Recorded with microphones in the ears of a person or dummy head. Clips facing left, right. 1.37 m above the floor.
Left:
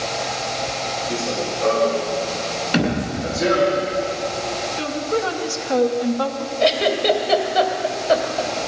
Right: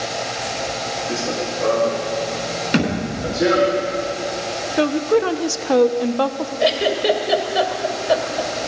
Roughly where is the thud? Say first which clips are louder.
Even; right.